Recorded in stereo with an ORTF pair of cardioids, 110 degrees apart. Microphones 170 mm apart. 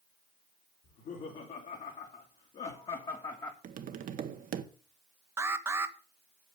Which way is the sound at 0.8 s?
60° left.